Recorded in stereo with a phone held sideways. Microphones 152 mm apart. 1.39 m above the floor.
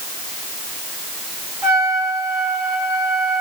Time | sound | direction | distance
1.6 | a trumpet | centre (ahead or behind) | 7 m